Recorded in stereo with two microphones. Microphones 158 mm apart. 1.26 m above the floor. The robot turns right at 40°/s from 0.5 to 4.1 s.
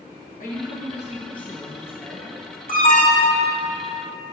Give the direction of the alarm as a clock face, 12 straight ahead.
8 o'clock.